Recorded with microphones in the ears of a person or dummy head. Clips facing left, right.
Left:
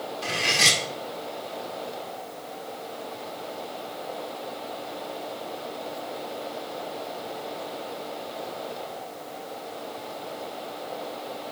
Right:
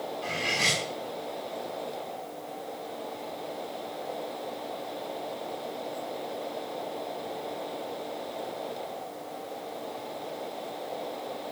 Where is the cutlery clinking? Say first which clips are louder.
Left 5 dB; 80° left, 1.6 m.